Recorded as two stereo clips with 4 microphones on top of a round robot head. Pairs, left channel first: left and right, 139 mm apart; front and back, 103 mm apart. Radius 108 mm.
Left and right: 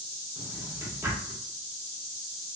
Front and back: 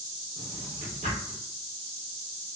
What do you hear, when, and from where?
0.4 s a drawer: 160° right, 0.7 m